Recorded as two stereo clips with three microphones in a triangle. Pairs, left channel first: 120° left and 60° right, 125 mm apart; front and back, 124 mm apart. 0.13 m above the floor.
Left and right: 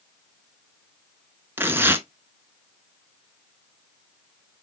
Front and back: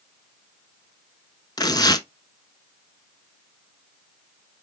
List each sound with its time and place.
1.6 s tearing paper: 5° right, 0.9 m